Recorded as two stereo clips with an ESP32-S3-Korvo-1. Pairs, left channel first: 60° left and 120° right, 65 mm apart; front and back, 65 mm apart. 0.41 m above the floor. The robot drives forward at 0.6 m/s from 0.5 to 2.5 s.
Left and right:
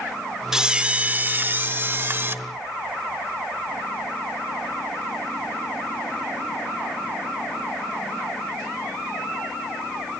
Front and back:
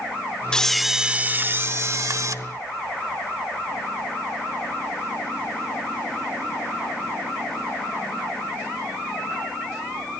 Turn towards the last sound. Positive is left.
turn(degrees=-170)